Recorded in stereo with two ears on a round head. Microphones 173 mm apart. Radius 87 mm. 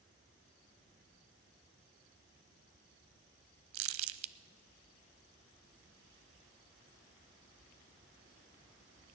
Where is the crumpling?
75° right (ahead or behind), 0.5 m.